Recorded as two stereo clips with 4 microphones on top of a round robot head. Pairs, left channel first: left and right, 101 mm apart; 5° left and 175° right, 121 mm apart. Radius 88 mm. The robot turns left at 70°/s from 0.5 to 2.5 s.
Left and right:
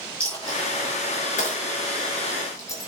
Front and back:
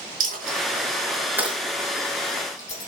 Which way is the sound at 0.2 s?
170° left.